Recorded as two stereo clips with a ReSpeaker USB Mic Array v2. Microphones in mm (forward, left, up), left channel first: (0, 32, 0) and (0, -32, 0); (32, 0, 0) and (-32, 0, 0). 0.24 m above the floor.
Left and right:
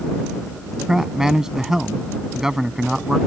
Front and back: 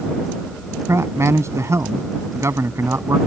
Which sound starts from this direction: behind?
A man speaking, at 0.9 s.